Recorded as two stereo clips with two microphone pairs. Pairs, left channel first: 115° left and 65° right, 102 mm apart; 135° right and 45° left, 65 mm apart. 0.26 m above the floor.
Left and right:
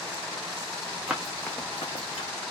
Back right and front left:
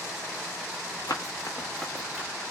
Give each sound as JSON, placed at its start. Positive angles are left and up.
{"t": 1.1, "sound": "running footsteps", "azimuth_deg": -140, "distance_m": 0.8}